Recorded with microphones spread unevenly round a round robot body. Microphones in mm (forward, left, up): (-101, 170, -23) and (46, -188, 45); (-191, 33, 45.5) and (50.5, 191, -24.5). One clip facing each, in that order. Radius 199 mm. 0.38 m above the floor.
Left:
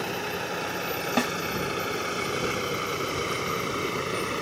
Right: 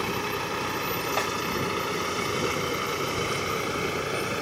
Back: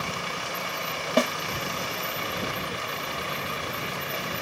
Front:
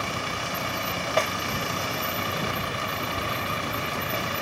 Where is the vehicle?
10° left; by 4.4 s 30° left.